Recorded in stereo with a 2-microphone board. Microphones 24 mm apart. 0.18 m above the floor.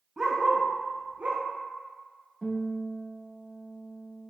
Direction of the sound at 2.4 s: 15° right (ahead or behind).